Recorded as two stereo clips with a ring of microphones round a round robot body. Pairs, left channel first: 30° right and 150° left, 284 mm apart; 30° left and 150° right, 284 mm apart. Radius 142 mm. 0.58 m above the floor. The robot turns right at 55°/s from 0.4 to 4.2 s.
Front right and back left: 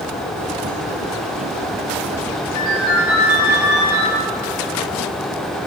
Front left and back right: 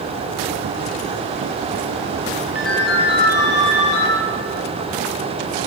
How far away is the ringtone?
About 6.5 m.